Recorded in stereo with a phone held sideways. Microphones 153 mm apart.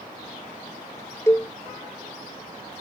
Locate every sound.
1.3 s a cowbell: 15° left (ahead or behind)